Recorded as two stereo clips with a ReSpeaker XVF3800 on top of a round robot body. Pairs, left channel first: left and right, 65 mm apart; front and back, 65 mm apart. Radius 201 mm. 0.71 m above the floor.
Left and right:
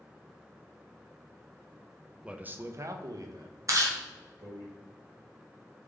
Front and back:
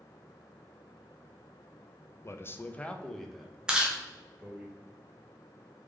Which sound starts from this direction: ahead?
A man speaking, at 2.2 s.